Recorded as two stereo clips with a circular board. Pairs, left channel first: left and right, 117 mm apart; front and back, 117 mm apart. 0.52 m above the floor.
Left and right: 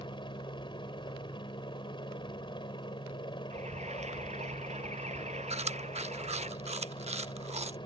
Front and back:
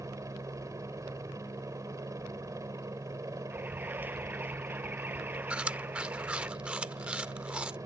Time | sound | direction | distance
0.0 | a helicopter | 125° left | ?
3.5 | an alarm | 105° right | ?
5.5 | chewing | 100° right | ?